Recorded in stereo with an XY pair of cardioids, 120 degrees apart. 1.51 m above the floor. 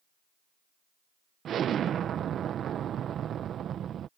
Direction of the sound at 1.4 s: 50° right.